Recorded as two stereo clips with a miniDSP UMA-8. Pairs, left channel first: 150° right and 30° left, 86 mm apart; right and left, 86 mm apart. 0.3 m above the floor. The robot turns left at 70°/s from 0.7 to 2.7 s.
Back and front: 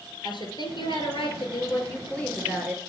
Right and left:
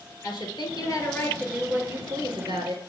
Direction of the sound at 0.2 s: 120° right.